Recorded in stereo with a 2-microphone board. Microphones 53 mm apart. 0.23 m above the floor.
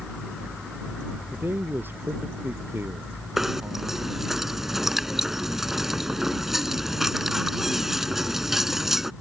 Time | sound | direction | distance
1.3 | a man speaking | 45° right (ahead or behind) | ?
3.4 | knocking | 5° right (ahead or behind) | ?